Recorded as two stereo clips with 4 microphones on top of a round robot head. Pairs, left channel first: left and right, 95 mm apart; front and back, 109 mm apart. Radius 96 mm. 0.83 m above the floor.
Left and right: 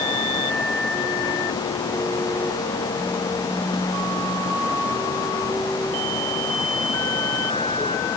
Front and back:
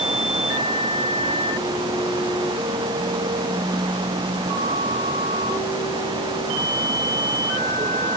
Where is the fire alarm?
I don't hear a fire alarm.